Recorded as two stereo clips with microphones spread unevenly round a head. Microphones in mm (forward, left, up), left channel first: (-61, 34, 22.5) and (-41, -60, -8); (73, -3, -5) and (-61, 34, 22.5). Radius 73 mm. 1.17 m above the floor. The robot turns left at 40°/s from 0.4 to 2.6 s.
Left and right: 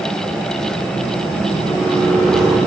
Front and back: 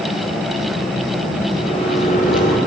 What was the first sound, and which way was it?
A microwave, 45° left.